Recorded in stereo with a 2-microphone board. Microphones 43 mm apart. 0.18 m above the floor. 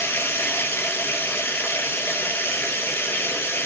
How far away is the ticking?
I don't hear ticking.